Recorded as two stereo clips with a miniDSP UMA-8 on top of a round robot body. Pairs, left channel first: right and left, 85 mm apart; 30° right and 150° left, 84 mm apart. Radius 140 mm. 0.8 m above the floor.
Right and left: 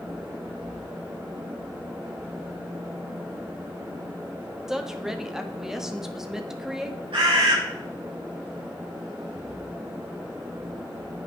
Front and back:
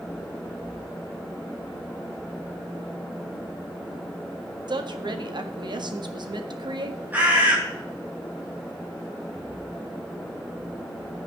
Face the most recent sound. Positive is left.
turn(degrees=80)